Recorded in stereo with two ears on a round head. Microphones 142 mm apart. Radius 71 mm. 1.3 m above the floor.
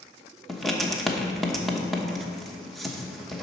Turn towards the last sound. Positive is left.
turn(degrees=0)  # may be behind; listen again after turning